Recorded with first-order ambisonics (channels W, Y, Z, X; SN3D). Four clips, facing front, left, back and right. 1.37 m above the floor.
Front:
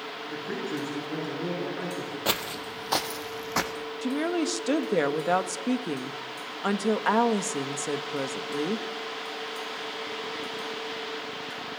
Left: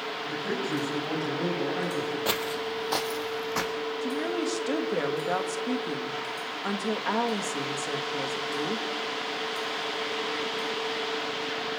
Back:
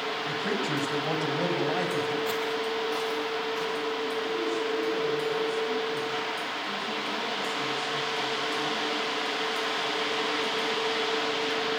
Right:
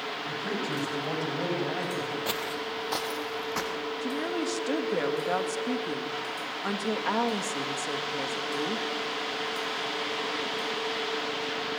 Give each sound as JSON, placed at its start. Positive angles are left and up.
{"t": 0.3, "sound": "a man speaking", "azimuth_deg": -170, "distance_m": 9.5}
{"t": 2.2, "sound": "footsteps", "azimuth_deg": 20, "distance_m": 1.9}
{"t": 4.0, "sound": "a woman speaking", "azimuth_deg": 0, "distance_m": 2.0}